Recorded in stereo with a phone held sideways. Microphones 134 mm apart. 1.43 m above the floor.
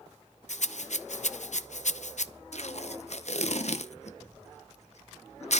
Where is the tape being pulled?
60° left (ahead or behind), 0.8 m.